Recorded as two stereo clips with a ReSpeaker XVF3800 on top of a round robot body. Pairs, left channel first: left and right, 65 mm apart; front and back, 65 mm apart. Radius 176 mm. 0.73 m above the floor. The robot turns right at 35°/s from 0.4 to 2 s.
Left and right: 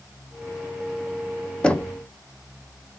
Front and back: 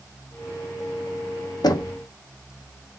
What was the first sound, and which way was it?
Knocking, 15° left.